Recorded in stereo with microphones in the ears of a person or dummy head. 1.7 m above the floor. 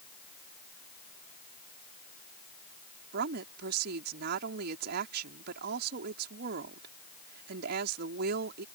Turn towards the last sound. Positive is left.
turn(degrees=-65)  # may be behind; listen again after turning